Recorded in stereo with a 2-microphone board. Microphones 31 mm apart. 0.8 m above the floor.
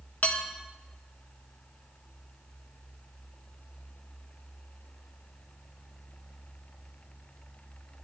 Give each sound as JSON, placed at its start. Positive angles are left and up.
{"t": 0.2, "sound": "dishes clattering", "side_deg": 55, "distance_m": 0.8}